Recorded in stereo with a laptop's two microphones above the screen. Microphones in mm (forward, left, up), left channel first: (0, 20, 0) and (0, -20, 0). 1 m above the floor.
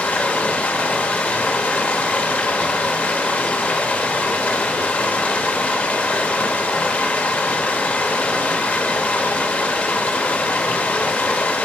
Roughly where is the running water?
Left.